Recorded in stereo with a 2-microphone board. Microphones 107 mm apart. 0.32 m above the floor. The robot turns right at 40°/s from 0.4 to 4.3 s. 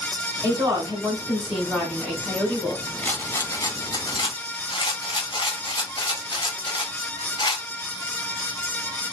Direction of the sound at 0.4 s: 65° right.